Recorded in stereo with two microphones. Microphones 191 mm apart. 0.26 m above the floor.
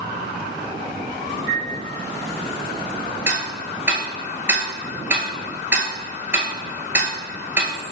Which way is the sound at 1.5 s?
20° left (ahead or behind).